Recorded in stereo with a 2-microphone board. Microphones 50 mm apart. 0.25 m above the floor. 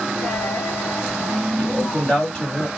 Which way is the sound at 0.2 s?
30° left (ahead or behind).